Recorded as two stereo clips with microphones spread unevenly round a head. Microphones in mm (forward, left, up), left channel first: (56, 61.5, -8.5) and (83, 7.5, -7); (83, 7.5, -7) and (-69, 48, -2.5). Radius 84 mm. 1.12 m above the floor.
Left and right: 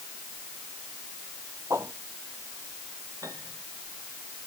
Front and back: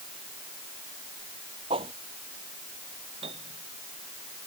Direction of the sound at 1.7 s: 130° right.